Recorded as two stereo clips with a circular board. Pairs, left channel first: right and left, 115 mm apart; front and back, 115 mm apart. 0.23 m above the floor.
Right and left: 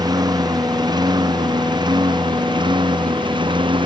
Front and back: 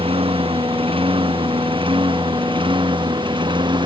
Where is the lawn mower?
145° left; by 3.9 s 135° left.